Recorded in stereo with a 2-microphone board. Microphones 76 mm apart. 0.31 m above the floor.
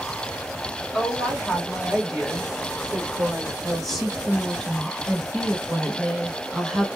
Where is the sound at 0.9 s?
10° left (ahead or behind), 1.6 m; by 3.5 s 5° right (ahead or behind), 1.6 m.